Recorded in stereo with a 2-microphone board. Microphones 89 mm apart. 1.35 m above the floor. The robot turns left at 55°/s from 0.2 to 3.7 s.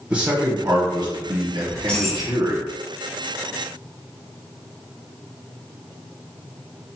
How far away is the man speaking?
About 1.1 m.